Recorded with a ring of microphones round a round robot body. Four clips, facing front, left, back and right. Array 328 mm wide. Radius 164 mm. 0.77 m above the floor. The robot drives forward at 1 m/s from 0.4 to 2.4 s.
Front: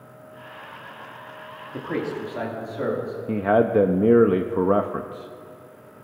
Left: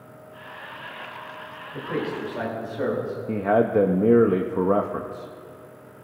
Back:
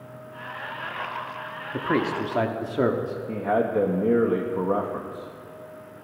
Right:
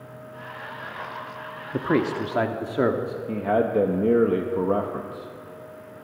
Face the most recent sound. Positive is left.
turn(degrees=15)